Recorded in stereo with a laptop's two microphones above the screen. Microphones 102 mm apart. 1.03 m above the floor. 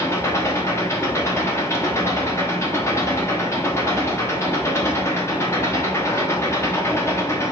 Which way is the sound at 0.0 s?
25° left (ahead or behind).